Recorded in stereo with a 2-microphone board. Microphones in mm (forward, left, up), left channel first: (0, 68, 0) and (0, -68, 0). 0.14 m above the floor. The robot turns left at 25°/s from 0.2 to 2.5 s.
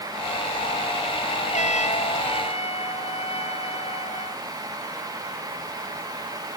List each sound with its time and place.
1.5 s a trumpet: 60° left (ahead or behind); by 4.4 s 45° left (ahead or behind)